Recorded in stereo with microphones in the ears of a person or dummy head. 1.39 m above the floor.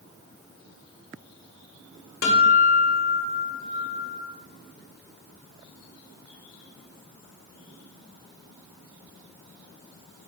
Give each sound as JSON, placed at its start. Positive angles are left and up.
{"t": 2.2, "sound": "a guitar", "side_deg": 60, "distance_m": 0.8}